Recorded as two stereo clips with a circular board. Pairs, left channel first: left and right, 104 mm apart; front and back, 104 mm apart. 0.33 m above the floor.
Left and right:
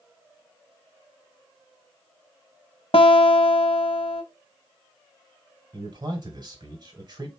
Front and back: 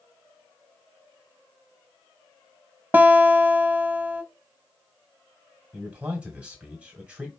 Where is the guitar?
110° left, 0.6 m.